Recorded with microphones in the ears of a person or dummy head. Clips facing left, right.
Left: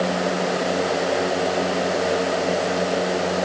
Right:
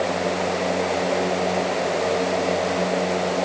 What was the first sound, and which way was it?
Only background noise.